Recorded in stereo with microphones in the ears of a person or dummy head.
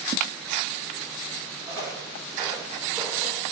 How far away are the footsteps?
About 3 m.